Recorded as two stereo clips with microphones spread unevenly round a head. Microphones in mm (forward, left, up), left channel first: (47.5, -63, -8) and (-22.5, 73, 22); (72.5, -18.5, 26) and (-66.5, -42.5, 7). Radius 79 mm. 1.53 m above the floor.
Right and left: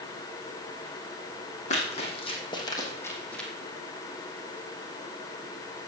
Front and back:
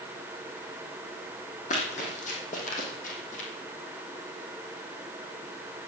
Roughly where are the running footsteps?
Ahead.